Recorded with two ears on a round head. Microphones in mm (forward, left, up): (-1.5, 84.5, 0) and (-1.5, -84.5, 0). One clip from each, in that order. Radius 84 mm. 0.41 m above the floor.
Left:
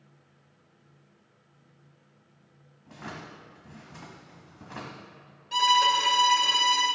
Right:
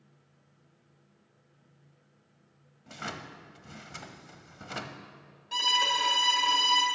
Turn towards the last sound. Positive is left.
turn(degrees=-5)  # may be behind; listen again after turning